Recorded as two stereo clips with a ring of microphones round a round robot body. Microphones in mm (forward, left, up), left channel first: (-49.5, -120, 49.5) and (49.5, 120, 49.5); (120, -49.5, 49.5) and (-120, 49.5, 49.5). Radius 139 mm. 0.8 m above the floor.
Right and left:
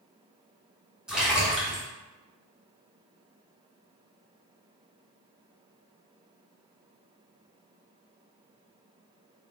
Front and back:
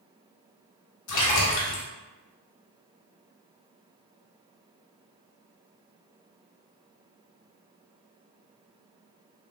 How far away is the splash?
About 1.0 m.